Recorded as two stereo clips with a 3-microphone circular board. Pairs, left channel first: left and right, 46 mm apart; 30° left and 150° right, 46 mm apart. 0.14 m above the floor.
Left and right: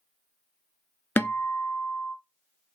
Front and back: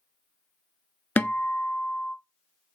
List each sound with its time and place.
1.2 s a guitar: 65° left, 0.7 m